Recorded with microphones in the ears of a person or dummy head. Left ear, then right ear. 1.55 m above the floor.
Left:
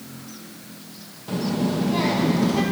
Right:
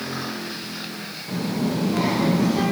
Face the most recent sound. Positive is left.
turn(degrees=25)  # may be behind; listen again after turning